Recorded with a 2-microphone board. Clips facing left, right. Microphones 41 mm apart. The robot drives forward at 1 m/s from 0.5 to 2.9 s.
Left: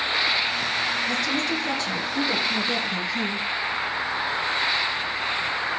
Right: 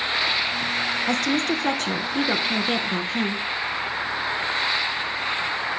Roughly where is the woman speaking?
Right.